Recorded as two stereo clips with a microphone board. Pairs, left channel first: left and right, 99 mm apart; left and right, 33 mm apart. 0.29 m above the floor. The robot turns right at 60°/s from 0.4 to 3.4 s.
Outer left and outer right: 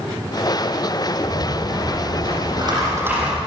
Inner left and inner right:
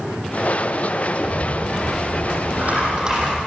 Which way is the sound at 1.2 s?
135° right.